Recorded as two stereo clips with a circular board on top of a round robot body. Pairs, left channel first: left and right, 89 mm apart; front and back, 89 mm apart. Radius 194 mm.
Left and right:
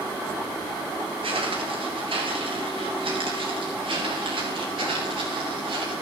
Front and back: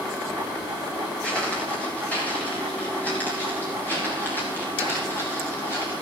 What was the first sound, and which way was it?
Footsteps, 80° right.